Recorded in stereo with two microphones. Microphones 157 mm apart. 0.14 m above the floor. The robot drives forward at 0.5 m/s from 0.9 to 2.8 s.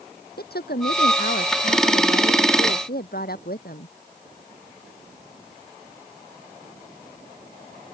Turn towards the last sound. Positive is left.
turn(degrees=70)  # may be behind; listen again after turning